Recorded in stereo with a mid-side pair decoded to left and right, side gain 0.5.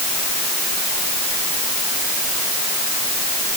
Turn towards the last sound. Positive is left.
No sound to turn to.